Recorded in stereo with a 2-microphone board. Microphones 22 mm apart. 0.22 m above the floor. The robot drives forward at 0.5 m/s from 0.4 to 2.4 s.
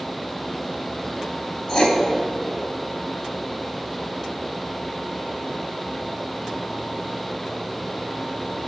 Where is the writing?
35° left (ahead or behind), 1.0 m.